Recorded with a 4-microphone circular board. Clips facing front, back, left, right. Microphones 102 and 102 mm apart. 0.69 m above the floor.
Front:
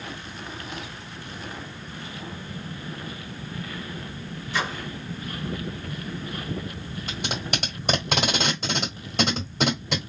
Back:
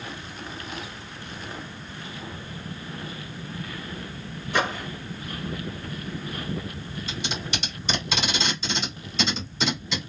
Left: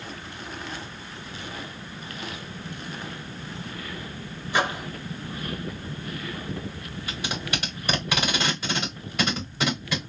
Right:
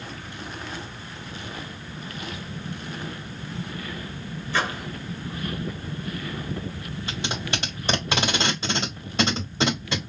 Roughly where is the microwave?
Behind.